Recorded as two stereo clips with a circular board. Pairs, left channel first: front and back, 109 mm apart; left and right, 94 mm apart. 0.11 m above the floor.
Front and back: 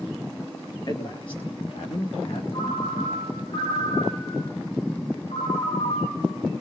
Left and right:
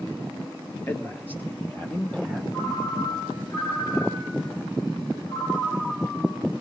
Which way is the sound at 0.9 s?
30° left.